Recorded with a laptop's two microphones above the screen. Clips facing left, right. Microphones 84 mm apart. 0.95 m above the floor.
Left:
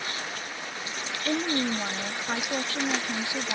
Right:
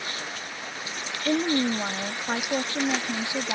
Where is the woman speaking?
20° right (ahead or behind).